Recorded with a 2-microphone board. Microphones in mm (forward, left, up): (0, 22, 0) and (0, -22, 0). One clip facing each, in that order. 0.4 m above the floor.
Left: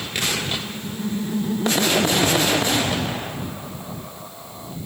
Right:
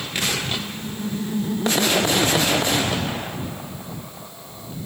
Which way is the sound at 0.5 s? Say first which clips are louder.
Even; centre (ahead or behind).